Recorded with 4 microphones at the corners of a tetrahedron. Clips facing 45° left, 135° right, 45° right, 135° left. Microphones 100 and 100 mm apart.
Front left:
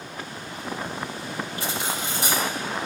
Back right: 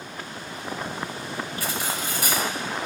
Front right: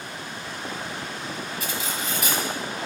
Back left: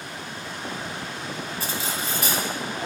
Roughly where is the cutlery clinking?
Left.